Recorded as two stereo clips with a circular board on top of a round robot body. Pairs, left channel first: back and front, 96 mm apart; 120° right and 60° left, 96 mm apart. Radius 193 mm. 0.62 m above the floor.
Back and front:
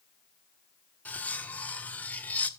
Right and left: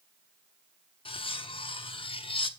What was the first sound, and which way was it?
Cutlery clinking, 105° right.